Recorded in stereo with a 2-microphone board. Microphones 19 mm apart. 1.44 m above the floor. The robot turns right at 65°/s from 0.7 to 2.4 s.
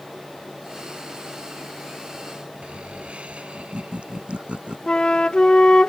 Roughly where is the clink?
I don't hear a clink.